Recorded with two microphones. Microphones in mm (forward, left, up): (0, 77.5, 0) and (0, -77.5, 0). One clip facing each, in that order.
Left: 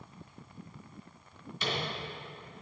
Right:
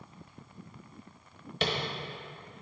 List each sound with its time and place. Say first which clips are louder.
1.6 s tapping: right 4 dB; 75° right (ahead or behind), 1.1 m